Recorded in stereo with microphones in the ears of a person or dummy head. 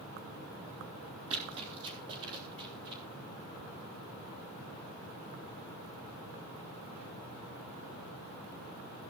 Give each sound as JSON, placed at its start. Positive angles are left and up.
{"t": 1.3, "sound": "running footsteps", "side_deg": -35, "distance_m": 3.0}